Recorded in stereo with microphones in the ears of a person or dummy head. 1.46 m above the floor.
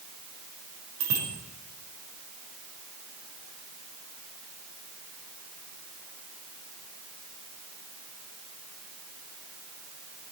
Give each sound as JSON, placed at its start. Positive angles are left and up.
{"t": 1.0, "sound": "a bicycle bell", "side_deg": -85, "distance_m": 5.0}